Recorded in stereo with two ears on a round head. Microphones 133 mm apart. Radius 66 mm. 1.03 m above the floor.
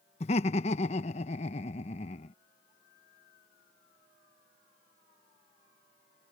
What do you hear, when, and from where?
0.2 s laughter: 45° left (ahead or behind)